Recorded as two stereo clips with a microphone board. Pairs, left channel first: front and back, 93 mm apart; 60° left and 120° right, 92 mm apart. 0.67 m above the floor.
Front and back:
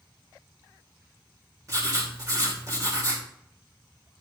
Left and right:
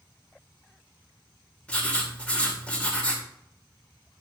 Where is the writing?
135° left, 2.5 m.